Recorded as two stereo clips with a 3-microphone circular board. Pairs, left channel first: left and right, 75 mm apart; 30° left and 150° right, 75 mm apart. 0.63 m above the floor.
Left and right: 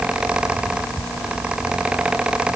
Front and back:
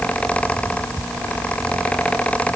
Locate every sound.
Only background noise.